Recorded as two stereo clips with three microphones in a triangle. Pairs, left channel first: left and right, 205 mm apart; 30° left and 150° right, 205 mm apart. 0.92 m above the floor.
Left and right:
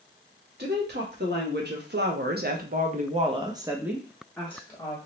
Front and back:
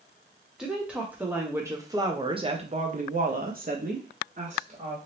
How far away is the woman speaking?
About 1.5 m.